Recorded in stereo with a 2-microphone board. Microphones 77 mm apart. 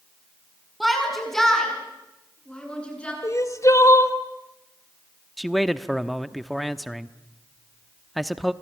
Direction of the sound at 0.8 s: Centre (ahead or behind).